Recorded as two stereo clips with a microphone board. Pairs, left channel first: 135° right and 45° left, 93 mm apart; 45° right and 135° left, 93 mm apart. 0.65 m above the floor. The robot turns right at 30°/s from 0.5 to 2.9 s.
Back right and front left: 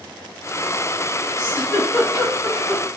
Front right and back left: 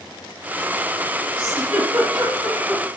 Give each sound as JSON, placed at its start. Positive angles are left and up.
{"t": 1.4, "sound": "a giggle", "azimuth_deg": 125, "distance_m": 2.0}